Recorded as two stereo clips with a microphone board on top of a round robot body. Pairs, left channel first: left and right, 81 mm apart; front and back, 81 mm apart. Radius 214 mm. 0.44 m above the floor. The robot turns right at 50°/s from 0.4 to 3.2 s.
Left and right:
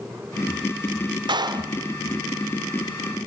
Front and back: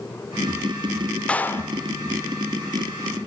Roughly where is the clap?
Right.